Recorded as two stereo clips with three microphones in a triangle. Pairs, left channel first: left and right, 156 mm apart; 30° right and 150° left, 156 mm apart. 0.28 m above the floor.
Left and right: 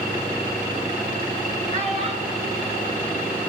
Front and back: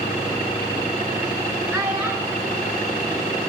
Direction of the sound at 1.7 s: 135° right.